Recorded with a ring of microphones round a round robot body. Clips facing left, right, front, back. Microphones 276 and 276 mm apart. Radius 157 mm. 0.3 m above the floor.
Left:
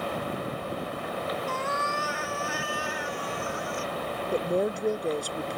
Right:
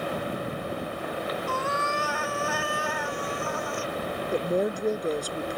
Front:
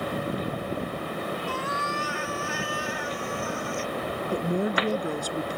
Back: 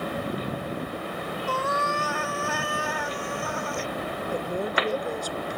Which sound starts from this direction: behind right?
A cat meowing, at 1.5 s.